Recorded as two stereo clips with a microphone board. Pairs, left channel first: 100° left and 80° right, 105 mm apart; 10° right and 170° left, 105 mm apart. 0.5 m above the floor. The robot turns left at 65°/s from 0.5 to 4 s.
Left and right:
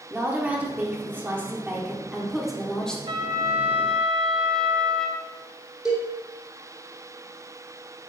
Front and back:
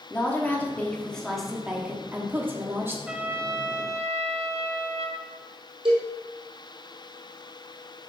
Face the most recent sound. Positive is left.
turn(degrees=-165)